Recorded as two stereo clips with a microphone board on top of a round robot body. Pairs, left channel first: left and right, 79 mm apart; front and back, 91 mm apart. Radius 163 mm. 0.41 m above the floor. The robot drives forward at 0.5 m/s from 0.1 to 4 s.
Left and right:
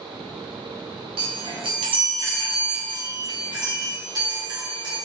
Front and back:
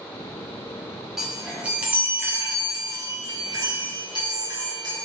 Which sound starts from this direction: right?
A chime, at 1.2 s.